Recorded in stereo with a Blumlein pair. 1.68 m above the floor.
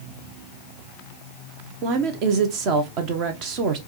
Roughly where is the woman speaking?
Ahead right.